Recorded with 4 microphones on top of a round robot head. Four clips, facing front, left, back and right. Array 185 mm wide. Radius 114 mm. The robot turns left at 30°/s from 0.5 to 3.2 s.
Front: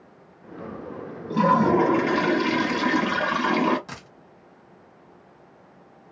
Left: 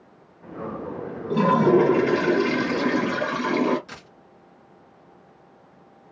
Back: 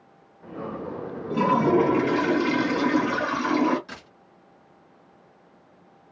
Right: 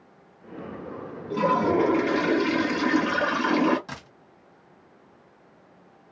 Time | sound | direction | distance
1.3 | a toilet flushing | 45° left | 1.7 m
3.9 | a dropped coin | 50° right | 1.3 m